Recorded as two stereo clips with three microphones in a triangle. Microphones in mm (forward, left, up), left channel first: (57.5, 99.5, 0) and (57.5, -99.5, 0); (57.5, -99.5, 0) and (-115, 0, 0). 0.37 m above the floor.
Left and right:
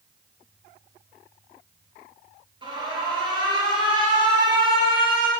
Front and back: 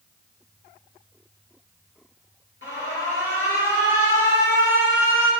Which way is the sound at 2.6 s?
25° right.